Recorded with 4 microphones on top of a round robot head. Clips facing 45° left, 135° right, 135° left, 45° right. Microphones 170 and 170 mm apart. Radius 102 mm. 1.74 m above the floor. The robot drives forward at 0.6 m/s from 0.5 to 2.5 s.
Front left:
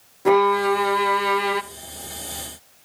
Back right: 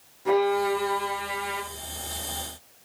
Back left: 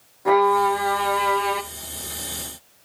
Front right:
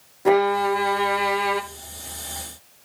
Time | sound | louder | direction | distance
0.2 | a violin | front left 5 dB, even | 20° left | 1.1 m